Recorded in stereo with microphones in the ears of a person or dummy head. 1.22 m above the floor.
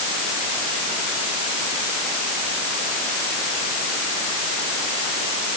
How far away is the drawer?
I don't hear a drawer.